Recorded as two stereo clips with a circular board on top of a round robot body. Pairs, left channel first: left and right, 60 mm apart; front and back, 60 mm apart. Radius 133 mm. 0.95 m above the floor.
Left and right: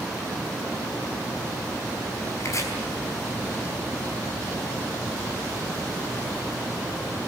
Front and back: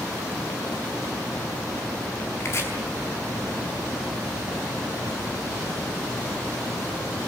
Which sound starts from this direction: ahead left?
Chopping, at 2.4 s.